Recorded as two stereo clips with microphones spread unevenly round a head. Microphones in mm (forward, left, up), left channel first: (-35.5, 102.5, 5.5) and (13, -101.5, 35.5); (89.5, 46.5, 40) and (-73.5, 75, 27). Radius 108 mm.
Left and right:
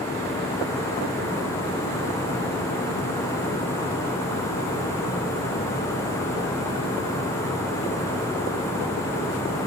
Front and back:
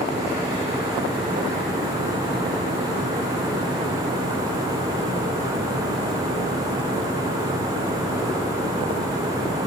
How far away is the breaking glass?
No breaking glass in this recording.